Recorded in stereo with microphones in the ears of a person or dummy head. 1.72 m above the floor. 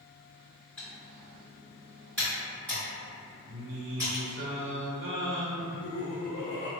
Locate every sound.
0.8 s typing on a keyboard: 5° left (ahead or behind), 2.0 m
3.5 s singing: 55° right (ahead or behind), 0.5 m
5.5 s laughter: 25° left (ahead or behind), 0.5 m